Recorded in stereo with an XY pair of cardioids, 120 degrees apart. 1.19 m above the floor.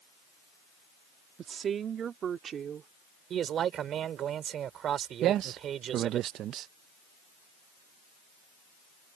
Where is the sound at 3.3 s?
55° right.